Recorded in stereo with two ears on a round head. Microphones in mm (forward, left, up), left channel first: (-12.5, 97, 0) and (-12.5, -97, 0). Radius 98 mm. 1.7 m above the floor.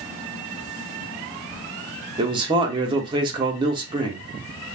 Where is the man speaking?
20° right (ahead or behind), 0.7 m.